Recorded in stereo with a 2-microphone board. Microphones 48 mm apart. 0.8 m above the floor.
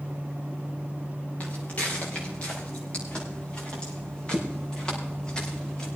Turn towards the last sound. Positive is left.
turn(degrees=20)  # may be behind; listen again after turning